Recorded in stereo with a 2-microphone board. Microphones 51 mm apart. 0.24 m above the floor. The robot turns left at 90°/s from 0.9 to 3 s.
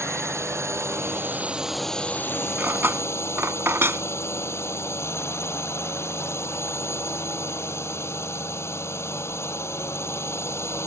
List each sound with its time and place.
0.0 s a drone: 100° right; by 10.9 s 70° left
2.6 s cutlery clinking: 40° right (ahead or behind); by 4.0 s 60° right (ahead or behind)